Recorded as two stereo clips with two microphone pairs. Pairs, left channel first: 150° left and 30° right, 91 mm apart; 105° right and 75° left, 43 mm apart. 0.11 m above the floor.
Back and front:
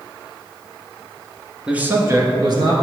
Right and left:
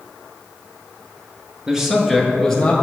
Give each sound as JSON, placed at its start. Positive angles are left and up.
{"t": 1.7, "sound": "a man speaking", "azimuth_deg": 40, "distance_m": 1.3}